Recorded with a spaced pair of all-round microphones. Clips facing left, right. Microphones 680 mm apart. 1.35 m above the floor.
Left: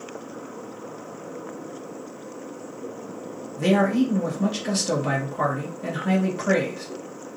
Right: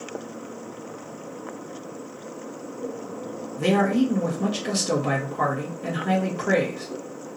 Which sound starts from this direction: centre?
A man speaking, at 3.6 s.